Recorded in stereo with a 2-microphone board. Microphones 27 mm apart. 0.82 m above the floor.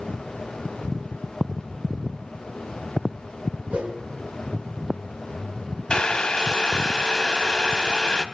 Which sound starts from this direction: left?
Boiling, at 5.9 s.